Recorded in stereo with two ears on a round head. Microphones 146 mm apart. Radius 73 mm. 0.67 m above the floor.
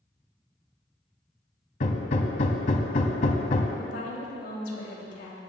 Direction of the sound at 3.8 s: 75° left (ahead or behind).